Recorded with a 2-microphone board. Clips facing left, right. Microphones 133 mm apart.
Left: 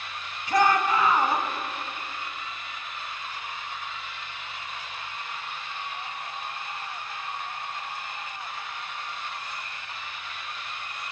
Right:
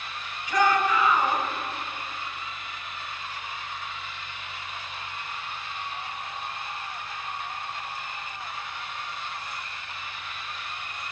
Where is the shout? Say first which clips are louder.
Left 1 dB; 35° left (ahead or behind), 1.0 m.